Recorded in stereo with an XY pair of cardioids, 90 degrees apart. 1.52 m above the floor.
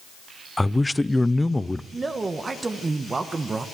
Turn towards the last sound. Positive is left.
turn(degrees=-35)